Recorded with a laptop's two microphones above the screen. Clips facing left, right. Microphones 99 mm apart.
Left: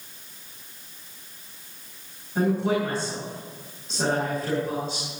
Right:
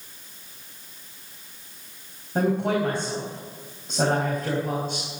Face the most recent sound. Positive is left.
turn(degrees=-55)  # may be behind; listen again after turning